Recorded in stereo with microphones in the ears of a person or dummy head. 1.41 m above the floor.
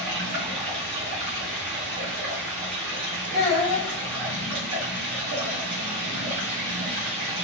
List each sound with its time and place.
0.0 s running water: 50° right (ahead or behind), 0.9 m
3.3 s a child speaking: 50° right (ahead or behind), 1.3 m